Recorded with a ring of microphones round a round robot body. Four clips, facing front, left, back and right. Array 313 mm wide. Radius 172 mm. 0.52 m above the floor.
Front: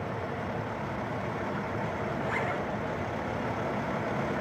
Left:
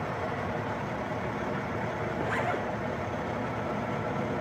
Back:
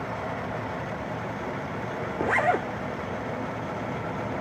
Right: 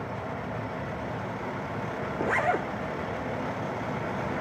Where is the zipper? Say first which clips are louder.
Right 6 dB, back 11 dB; 160° right, 1.5 m.